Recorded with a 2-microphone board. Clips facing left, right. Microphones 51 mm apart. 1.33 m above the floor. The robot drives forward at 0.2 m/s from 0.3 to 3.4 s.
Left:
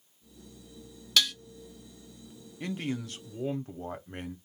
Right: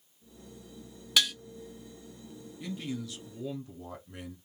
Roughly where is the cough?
No cough in this recording.